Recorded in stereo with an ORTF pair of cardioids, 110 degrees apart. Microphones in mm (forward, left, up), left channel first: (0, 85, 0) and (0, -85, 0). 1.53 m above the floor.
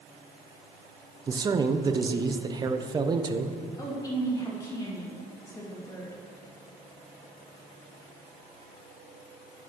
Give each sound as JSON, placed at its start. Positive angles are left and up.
{"t": 1.3, "sound": "a man speaking", "azimuth_deg": -25, "distance_m": 0.7}
{"t": 3.8, "sound": "a woman speaking", "azimuth_deg": 20, "distance_m": 2.5}